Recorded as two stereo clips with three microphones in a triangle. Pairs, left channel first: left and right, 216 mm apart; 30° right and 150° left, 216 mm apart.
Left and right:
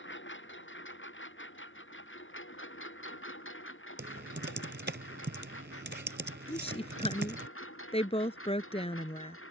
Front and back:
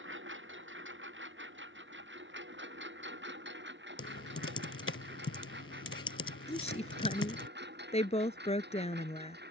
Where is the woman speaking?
30° left.